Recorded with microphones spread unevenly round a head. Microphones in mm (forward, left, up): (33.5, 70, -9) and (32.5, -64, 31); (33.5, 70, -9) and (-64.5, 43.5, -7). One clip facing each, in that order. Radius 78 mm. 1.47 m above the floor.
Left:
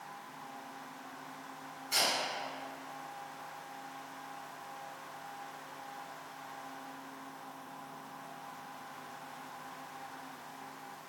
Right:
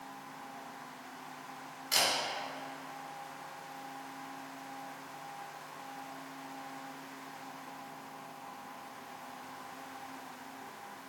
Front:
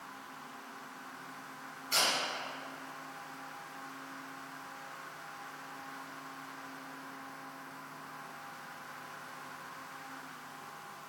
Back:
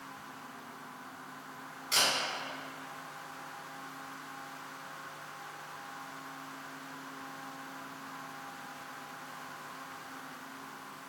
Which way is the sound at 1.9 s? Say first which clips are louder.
Right 1 dB, back 1 dB; 110° right.